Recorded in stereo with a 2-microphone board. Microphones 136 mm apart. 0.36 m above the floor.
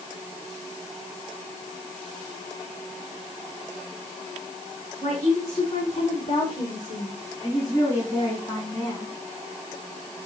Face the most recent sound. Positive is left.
turn(degrees=10)  # may be behind; listen again after turning